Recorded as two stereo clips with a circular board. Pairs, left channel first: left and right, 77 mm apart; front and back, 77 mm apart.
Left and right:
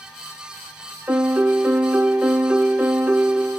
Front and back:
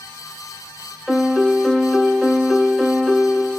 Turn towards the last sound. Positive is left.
turn(degrees=-105)